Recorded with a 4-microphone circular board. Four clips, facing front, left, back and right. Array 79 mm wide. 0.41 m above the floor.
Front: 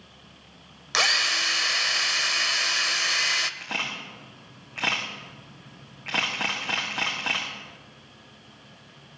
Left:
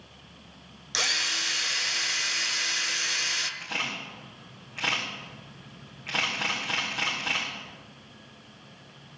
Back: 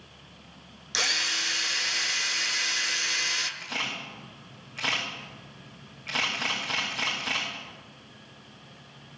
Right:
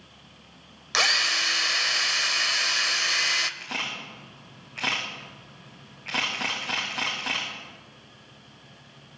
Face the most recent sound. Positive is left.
turn(degrees=-20)